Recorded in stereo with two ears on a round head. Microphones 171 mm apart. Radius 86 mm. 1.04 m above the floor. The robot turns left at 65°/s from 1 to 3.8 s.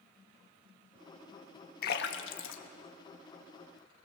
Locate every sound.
1.8 s a splash: 50° left (ahead or behind), 1.4 m; by 3.8 s centre (ahead or behind), 1.4 m